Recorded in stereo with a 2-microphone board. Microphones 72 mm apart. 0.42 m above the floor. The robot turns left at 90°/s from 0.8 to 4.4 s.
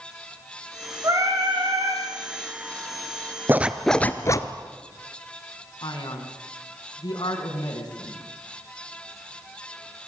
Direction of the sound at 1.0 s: 40° right.